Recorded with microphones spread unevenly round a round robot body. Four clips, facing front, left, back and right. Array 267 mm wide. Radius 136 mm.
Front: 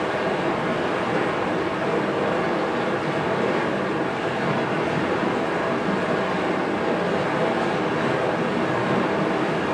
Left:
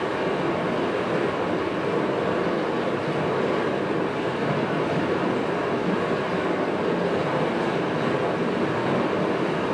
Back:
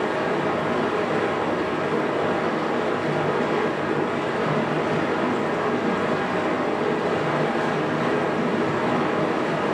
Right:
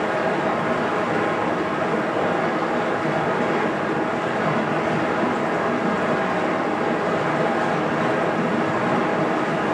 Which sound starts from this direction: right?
Running water, at 0.0 s.